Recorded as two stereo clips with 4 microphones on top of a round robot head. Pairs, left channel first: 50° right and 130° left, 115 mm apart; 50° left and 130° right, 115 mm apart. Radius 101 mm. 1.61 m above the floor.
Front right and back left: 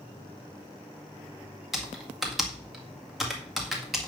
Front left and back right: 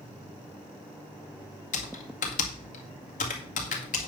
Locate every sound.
1.7 s typing on a keyboard: 40° left, 1.8 m